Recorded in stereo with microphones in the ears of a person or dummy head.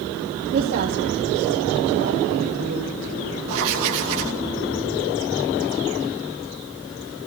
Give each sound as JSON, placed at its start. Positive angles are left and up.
{"t": 0.5, "sound": "a woman speaking", "side_deg": -55, "distance_m": 2.0}
{"t": 3.5, "sound": "writing", "side_deg": -75, "distance_m": 2.5}